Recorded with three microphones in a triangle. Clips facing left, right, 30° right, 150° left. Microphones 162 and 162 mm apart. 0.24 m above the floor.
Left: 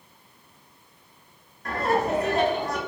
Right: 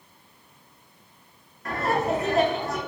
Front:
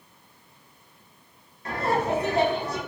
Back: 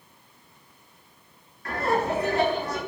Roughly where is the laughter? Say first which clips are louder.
Left 1 dB, even; ahead.